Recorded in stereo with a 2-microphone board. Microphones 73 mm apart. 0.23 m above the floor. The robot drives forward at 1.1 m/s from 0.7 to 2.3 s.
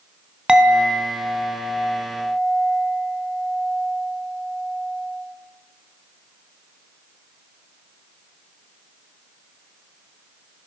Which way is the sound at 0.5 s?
10° right (ahead or behind).